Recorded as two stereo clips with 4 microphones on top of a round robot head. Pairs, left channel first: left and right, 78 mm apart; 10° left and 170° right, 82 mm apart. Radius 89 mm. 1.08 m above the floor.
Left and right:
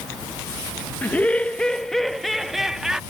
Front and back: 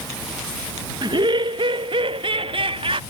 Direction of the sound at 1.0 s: 160° left.